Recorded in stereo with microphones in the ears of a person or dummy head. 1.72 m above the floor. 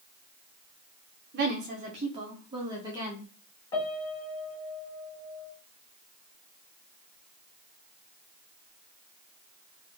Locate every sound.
1.3 s a woman speaking: 50° right (ahead or behind), 0.9 m; by 3.3 s 20° right (ahead or behind), 1.8 m
3.7 s a piano: 20° left (ahead or behind), 1.3 m